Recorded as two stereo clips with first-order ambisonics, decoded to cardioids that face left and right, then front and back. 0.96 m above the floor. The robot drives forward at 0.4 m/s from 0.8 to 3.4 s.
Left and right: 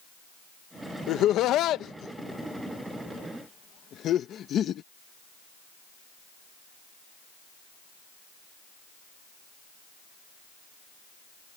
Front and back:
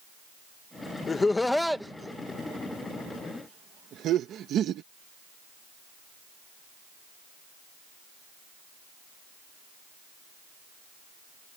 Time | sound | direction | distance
1.1 | laughter | 65° left | ?